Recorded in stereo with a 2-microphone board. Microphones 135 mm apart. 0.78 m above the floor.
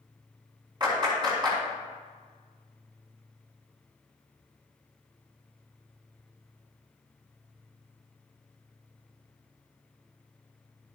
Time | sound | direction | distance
0.8 | a clap | 35° right (ahead or behind) | 5 m